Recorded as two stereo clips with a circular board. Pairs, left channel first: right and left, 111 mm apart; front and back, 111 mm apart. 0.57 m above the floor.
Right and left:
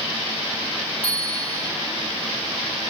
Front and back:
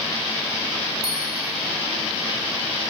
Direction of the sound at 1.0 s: 65° right.